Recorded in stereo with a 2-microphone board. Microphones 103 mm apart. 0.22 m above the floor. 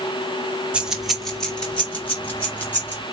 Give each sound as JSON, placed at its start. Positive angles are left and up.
{"t": 0.7, "sound": "keys jangling", "side_deg": -10, "distance_m": 1.1}